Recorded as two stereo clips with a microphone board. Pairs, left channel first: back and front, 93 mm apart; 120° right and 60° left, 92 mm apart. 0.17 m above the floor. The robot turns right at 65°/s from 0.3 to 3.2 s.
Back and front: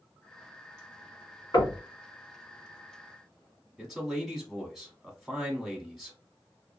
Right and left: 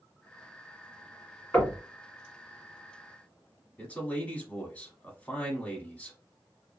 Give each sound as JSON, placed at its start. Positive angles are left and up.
{"t": 1.5, "sound": "knocking", "azimuth_deg": 170, "distance_m": 1.4}
{"t": 3.8, "sound": "a man speaking", "azimuth_deg": -85, "distance_m": 1.1}